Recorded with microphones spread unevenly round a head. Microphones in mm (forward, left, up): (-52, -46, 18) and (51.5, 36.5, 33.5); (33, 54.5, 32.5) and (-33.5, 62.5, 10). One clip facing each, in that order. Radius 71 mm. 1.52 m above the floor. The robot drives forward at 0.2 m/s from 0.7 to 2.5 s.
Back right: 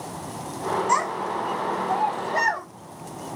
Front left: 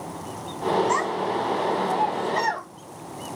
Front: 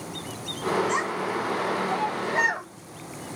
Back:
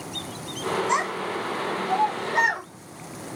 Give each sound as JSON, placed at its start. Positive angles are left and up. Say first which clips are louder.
{"t": 0.9, "sound": "a child speaking", "louder": "even, back 1 dB", "azimuth_deg": -165, "distance_m": 1.9}